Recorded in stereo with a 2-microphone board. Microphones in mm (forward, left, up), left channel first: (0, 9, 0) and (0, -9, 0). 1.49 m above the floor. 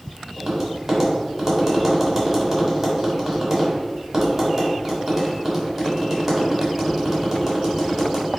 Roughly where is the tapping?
Centre.